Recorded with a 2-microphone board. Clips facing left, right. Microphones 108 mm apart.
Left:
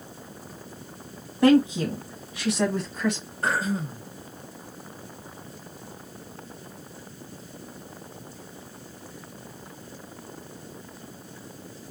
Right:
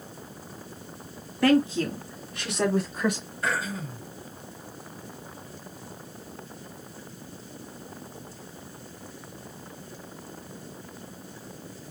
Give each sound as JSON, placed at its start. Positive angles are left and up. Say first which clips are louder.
{"t": 1.4, "sound": "a woman speaking", "louder": "left 3 dB", "side_deg": 25, "distance_m": 1.2}
{"t": 3.4, "sound": "throat clearing", "louder": "left 4 dB", "side_deg": 40, "distance_m": 1.7}